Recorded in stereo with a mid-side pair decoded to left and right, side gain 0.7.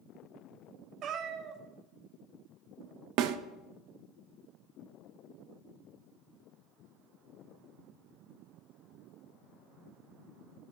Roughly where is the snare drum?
Ahead right.